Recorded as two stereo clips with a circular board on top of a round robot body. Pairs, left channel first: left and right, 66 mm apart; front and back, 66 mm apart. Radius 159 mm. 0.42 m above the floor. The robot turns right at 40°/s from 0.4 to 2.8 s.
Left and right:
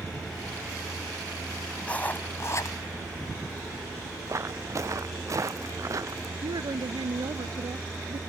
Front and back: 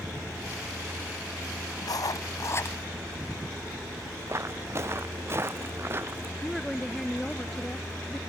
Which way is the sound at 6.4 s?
90° right.